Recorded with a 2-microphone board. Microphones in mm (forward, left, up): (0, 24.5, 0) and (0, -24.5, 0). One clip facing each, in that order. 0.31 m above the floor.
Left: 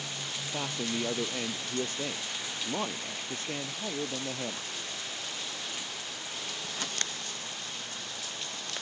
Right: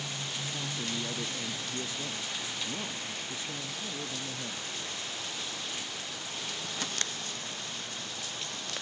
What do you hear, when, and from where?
0.5 s a man speaking: 50° left (ahead or behind)